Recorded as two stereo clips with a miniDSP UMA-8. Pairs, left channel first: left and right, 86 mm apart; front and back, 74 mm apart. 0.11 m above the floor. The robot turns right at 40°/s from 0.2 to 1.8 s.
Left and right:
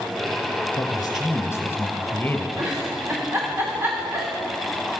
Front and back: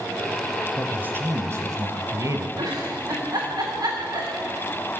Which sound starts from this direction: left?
A man speaking, at 0.8 s.